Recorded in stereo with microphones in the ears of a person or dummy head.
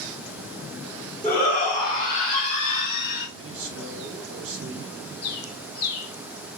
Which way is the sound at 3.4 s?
80° right.